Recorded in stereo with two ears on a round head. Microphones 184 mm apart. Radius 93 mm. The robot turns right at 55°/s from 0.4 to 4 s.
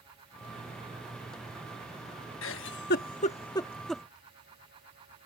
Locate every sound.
2.4 s a giggle: 70° left (ahead or behind); by 4.0 s centre (ahead or behind)